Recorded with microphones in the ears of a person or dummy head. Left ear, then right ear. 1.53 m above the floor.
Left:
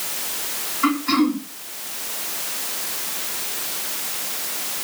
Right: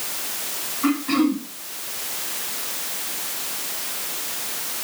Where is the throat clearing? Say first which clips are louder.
Left 2 dB; 70° left (ahead or behind), 3.5 m.